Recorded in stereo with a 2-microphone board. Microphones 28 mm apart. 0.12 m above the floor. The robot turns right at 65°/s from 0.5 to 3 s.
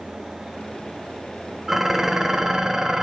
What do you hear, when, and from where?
1.7 s dishes clattering: 5° right (ahead or behind), 0.8 m; by 3.0 s 20° right (ahead or behind), 0.8 m